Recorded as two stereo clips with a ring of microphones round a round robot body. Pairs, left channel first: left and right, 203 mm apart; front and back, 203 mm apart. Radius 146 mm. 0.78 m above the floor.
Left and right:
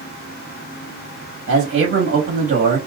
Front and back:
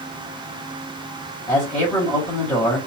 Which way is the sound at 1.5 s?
85° right.